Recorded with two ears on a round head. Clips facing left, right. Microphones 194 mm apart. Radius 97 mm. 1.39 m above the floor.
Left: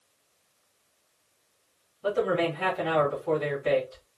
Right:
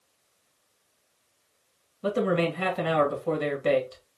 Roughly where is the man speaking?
Right.